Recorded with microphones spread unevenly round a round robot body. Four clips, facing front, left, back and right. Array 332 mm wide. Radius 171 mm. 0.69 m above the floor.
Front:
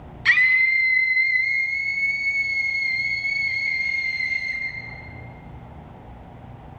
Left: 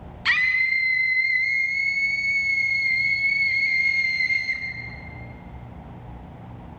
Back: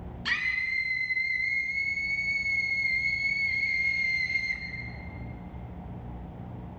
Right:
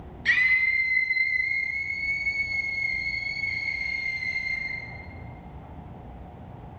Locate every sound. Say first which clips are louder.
0.2 s a scream: left 1 dB, front 12 dB; 60° left, 5.5 m; by 4.6 s 95° left, 5.5 m